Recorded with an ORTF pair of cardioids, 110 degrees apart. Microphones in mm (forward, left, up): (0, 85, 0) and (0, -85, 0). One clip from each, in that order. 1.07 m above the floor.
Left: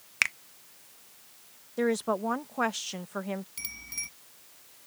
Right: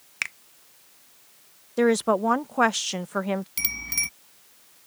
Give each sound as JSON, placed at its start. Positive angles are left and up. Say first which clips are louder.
{"t": 0.2, "sound": "a finger snap", "louder": "left 3 dB", "azimuth_deg": 15}
{"t": 1.8, "sound": "a woman speaking", "louder": "right 7 dB", "azimuth_deg": -35}
{"t": 3.6, "sound": "a bicycle bell", "louder": "right 10 dB", "azimuth_deg": -65}